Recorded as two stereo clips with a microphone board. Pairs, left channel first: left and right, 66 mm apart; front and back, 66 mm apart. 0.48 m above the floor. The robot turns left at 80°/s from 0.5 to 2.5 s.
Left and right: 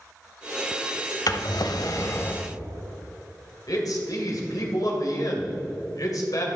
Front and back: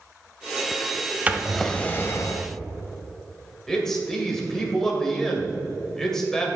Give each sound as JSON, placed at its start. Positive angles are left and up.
{"t": 1.3, "sound": "a drawer", "azimuth_deg": 115, "distance_m": 0.7}
{"t": 3.7, "sound": "a man speaking", "azimuth_deg": 80, "distance_m": 2.0}